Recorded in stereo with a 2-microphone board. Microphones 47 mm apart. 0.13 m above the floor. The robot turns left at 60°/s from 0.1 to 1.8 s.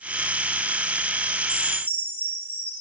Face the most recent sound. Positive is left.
turn(degrees=40)  # may be behind; listen again after turning